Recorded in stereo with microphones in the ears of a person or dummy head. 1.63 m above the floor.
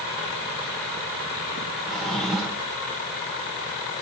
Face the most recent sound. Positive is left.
turn(degrees=0)  # may be behind; listen again after turning